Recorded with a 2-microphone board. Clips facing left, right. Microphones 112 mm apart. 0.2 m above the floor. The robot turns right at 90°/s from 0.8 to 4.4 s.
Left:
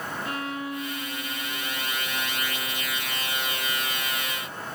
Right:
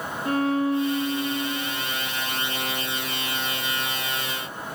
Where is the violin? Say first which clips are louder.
Right 13 dB; 140° right, 2 m; by 1.8 s 45° right, 2 m.